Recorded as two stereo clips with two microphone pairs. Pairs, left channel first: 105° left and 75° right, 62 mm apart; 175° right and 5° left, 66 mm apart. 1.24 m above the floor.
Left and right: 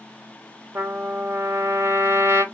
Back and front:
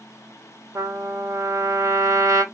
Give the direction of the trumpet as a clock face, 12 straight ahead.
1 o'clock.